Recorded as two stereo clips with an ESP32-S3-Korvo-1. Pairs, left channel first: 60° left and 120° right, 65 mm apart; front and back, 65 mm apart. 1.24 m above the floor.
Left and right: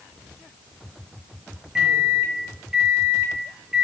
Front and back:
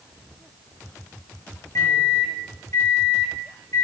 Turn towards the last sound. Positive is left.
turn(degrees=-40)